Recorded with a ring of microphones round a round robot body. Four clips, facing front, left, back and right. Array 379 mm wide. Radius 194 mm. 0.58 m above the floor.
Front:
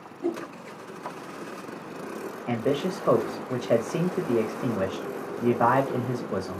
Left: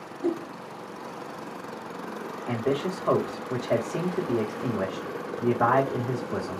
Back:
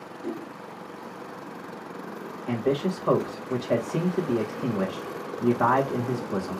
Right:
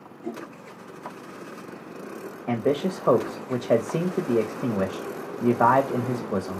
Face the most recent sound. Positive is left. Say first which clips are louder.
# right 3 dB, back 1 dB
turn(degrees=-80)